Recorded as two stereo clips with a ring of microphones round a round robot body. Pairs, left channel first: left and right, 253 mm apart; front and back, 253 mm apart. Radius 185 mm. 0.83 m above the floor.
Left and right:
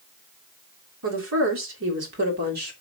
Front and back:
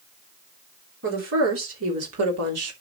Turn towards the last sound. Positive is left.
turn(degrees=-150)